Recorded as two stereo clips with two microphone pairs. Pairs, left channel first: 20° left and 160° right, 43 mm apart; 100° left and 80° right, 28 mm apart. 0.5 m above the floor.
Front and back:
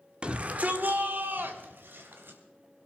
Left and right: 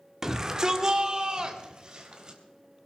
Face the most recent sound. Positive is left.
turn(degrees=-140)